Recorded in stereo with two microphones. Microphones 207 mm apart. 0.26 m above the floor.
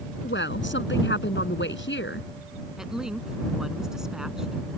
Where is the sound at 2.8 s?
5° right (ahead or behind).